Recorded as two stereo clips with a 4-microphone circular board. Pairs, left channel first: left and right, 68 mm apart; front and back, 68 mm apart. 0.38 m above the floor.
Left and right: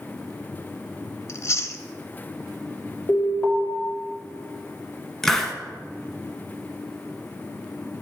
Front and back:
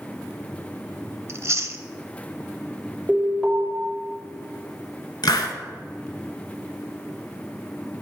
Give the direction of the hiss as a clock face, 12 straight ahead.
12 o'clock.